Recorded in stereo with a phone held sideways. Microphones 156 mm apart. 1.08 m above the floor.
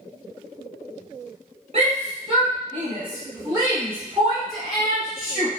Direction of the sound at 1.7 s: 45° right (ahead or behind).